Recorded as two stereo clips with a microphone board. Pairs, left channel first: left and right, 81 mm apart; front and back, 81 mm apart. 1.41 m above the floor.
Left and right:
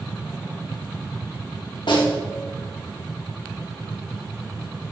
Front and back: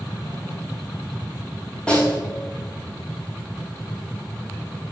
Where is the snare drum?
75° left, 3.5 m.